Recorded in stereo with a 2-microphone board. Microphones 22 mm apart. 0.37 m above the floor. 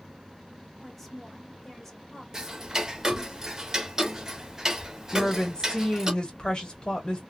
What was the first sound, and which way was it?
A woman speaking, 5° left (ahead or behind).